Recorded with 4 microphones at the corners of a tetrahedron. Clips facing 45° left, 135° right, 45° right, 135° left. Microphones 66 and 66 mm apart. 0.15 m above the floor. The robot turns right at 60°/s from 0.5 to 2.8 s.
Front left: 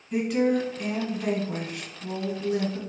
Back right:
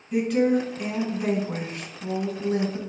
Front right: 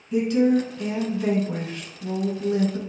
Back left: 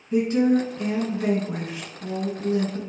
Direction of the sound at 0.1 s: 130° left.